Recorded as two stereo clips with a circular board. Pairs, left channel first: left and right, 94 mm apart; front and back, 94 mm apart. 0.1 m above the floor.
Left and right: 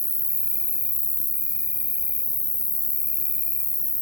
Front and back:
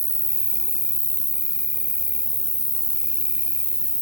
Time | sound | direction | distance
0.0 | an insect | 135° right | ?